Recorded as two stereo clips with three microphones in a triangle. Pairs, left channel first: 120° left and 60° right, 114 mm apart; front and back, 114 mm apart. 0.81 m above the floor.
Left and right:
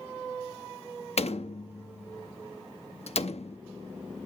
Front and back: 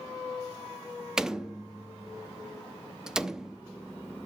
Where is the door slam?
95° left, 0.6 m.